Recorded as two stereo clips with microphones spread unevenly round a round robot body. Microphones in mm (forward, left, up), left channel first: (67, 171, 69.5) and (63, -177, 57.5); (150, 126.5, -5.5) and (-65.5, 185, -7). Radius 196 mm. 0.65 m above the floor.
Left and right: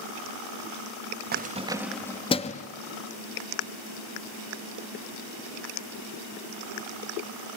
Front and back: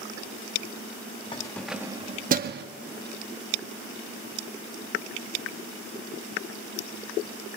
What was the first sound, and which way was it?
Keys jangling, 60° right.